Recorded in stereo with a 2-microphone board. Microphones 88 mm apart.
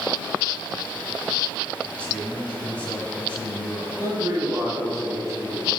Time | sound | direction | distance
1.9 | a man speaking | 15° left (ahead or behind) | 1.4 m
4.0 | a man speaking | 35° right (ahead or behind) | 3 m